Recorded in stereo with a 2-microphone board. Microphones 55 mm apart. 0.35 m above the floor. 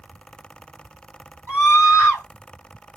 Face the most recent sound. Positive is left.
turn(degrees=35)  # may be behind; listen again after turning